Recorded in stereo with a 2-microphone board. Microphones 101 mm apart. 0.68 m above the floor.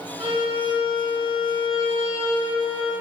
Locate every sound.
0.2 s a violin: 60° right (ahead or behind), 2.5 m